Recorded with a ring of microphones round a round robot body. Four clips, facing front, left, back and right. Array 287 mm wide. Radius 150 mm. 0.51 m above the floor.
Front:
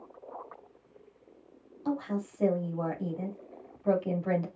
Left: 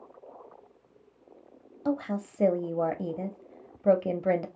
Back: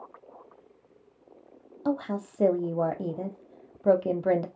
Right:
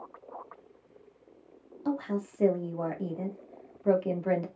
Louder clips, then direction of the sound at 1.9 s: Left 1 dB, back 3 dB; 150° left.